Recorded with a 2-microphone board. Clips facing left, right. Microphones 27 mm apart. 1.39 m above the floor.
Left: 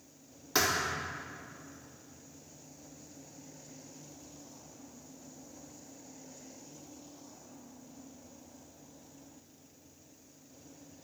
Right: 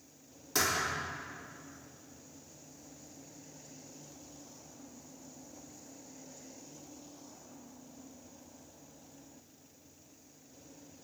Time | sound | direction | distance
0.6 | a thud | 25° left (ahead or behind) | 3.5 m